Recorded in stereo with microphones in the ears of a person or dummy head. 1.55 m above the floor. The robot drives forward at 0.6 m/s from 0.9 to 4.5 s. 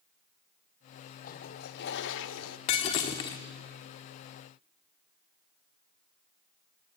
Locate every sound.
1.2 s a toilet flushing: 50° left (ahead or behind), 1.3 m; by 2.6 s 85° left, 1.0 m
2.7 s breaking glass: 30° left (ahead or behind), 1.2 m; by 3.4 s 25° left (ahead or behind), 1.4 m